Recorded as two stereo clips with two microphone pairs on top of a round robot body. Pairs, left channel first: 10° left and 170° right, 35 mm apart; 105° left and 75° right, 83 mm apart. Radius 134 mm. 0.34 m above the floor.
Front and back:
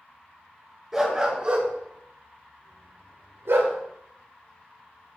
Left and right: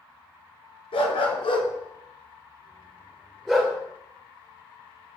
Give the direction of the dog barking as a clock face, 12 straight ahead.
8 o'clock.